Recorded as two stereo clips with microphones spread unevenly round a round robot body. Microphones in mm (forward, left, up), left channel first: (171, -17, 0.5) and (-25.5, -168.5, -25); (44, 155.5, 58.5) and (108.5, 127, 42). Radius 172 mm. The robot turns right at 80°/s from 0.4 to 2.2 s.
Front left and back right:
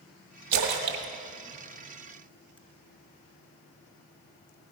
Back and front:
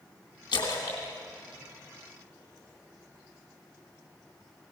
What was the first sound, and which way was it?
A splash, 170° right.